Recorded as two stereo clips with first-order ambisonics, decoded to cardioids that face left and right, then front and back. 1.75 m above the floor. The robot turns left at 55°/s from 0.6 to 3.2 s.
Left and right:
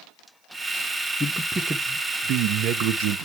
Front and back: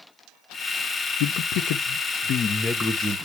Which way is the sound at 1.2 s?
10° left.